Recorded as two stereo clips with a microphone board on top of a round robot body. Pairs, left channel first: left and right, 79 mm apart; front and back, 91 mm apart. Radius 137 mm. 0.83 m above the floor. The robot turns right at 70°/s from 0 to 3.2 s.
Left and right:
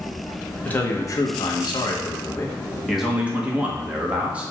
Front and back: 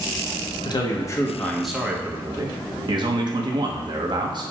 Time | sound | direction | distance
0.7 | a man speaking | 20° left | 0.7 m